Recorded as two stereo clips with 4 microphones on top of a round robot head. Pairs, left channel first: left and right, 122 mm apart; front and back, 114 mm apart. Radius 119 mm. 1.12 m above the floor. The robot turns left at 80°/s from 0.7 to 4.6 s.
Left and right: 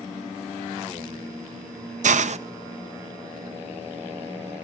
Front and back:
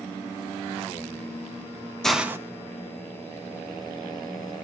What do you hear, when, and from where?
2.0 s a hiss: 85° right, 0.8 m; by 2.4 s 115° right, 0.8 m